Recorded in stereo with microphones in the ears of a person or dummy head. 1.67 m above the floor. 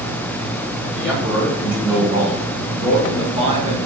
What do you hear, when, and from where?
0.9 s a man speaking: 5° right (ahead or behind), 3.5 m; by 3.8 s 30° right (ahead or behind), 1.9 m